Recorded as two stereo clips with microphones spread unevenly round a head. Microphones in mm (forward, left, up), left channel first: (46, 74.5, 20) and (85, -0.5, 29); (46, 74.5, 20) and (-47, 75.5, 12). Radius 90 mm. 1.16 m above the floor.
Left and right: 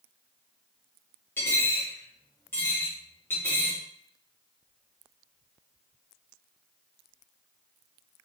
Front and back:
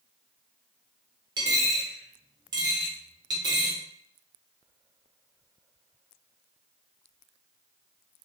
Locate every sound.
1.4 s a dropped coin: 170° right, 0.5 m